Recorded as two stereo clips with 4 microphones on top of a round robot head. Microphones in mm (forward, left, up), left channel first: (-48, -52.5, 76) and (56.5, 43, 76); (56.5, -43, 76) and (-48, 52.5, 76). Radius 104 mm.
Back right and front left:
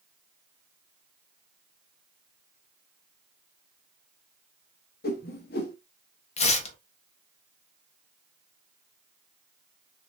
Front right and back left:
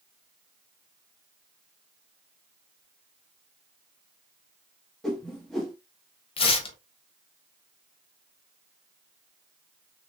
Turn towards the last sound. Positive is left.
turn(degrees=-95)